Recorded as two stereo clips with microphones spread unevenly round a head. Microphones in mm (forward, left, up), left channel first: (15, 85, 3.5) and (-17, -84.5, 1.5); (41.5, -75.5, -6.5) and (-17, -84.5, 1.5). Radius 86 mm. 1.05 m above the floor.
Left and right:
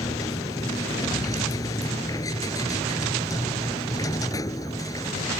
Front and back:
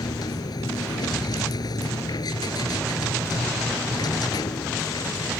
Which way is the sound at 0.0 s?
5° left.